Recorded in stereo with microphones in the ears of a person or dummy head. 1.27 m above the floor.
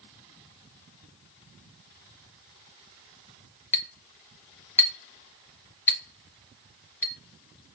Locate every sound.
3.7 s a clink: 10° left (ahead or behind), 0.6 m